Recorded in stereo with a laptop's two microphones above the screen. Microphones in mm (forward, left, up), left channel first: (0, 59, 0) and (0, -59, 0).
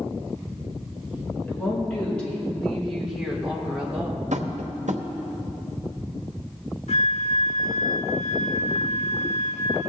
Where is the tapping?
85° right, 0.9 m.